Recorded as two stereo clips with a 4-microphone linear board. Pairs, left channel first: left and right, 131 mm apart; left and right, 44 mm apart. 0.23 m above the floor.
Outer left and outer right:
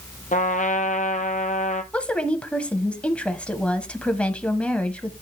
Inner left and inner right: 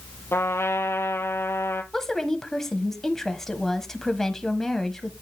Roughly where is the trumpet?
Left.